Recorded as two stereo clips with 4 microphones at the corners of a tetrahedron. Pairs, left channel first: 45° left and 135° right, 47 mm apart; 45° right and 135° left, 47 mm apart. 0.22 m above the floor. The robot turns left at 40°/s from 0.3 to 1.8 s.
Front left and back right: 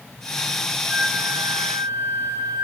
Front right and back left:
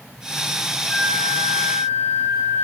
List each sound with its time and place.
0.9 s a flute: 70° right, 8 m; by 2.6 s 105° right, 8 m